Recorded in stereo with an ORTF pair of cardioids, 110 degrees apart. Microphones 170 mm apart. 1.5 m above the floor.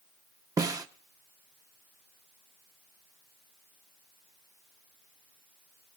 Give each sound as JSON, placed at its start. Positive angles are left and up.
{"t": 0.6, "sound": "a snare drum", "azimuth_deg": -20, "distance_m": 0.8}